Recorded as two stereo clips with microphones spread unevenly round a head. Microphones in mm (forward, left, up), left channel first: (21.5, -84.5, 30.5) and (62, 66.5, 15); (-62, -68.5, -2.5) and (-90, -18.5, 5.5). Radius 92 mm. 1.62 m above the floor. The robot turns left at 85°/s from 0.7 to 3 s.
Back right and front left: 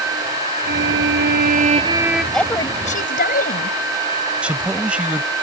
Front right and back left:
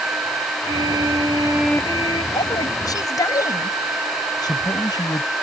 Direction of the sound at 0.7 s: 115° left.